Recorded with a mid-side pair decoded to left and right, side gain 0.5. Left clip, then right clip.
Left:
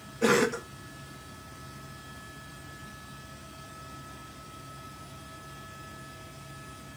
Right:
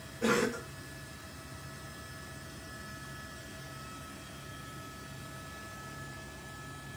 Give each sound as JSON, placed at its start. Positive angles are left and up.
{"t": 0.2, "sound": "a cough", "azimuth_deg": 45, "distance_m": 1.0}